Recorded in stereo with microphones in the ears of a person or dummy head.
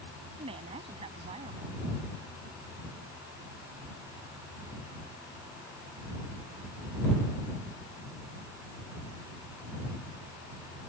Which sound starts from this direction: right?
A woman speaking, at 0.4 s.